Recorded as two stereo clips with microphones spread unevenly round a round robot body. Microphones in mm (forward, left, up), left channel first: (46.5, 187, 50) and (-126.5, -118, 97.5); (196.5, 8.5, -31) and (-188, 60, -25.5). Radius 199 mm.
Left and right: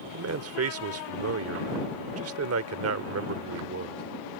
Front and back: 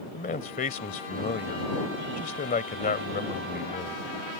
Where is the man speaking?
75° right.